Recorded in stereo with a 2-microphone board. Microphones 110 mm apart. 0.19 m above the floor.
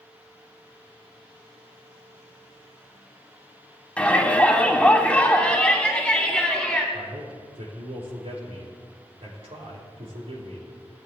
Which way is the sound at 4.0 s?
10° left (ahead or behind).